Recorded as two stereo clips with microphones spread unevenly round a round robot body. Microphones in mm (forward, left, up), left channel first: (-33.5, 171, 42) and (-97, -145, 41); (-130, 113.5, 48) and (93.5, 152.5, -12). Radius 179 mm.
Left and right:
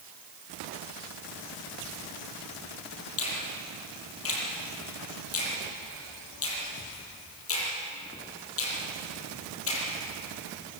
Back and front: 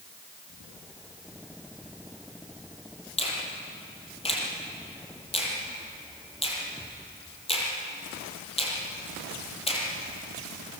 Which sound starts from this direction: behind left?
A finger snap, at 3.2 s.